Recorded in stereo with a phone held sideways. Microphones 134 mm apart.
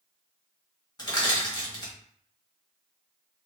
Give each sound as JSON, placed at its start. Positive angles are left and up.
{"t": 1.0, "sound": "crushing", "side_deg": 30, "distance_m": 1.4}